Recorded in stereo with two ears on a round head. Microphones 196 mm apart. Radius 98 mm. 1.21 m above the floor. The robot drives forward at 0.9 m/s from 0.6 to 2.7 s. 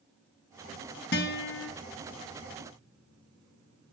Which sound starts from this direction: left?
A guitar, at 1.1 s.